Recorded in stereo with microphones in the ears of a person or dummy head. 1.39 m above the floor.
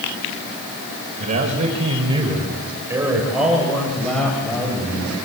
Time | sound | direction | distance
1.2 | a man speaking | 45° right (ahead or behind) | 5 m